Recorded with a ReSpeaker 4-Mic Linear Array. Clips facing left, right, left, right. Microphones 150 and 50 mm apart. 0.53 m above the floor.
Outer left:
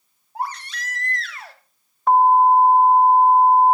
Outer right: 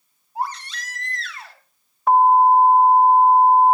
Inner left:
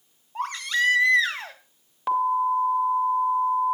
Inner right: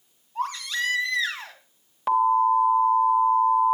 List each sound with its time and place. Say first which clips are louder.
0.3 s a baby crying: outer right 1 dB, inner left 3 dB; 55° left (ahead or behind), 1.9 m
2.1 s an alarm: even, inner right 3 dB; 5° right (ahead or behind), 1.2 m